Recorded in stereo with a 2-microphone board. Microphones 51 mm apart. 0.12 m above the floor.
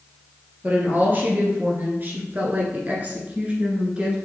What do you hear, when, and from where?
0.6 s a woman speaking: 40° right (ahead or behind), 1.8 m; by 4.2 s 20° right (ahead or behind), 1.4 m